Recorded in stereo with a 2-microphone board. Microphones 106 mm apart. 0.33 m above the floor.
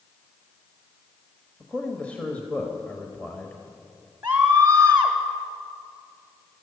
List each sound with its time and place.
1.6 s a man speaking: 15° left (ahead or behind), 1.1 m
4.2 s a scream: 15° right (ahead or behind), 1.2 m